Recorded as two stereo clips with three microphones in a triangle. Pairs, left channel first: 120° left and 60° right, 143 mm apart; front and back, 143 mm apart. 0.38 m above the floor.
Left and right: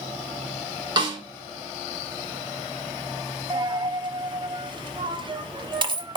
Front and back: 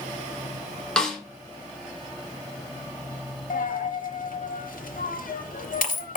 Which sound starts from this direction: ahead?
A dropped coin, at 3.5 s.